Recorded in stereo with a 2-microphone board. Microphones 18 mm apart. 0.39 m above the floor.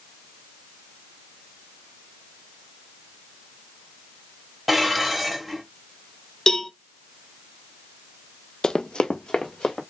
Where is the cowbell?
35° left (ahead or behind), 0.7 m.